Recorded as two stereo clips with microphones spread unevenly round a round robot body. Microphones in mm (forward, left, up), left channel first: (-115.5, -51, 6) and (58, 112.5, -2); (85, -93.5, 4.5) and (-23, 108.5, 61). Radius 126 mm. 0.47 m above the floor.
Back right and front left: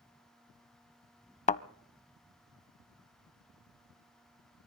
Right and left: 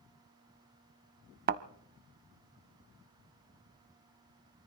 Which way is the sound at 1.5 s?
165° left.